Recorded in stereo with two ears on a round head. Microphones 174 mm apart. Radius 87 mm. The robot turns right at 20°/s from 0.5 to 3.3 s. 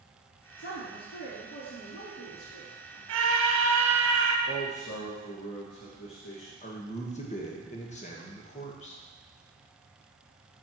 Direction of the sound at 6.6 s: 40° left (ahead or behind).